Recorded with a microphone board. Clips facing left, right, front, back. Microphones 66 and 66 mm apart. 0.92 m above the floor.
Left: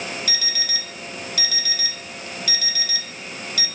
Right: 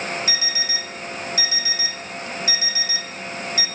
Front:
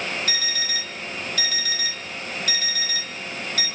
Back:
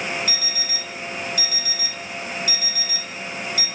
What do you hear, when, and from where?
0.3 s an alarm clock: 25° right, 1.3 m